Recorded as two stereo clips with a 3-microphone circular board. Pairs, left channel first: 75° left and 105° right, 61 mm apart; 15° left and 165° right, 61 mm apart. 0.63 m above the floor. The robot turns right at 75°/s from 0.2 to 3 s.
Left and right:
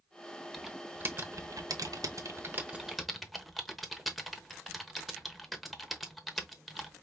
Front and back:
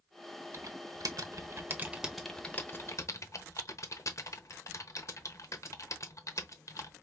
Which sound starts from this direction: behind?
Typing on a keyboard, at 0.5 s.